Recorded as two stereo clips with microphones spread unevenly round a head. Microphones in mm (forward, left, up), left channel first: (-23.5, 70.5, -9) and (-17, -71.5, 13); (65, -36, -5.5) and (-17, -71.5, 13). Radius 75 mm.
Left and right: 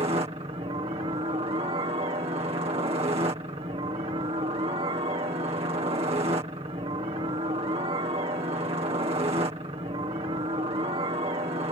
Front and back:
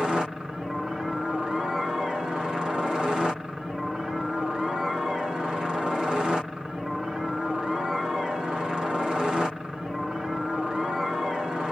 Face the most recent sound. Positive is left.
turn(degrees=-65)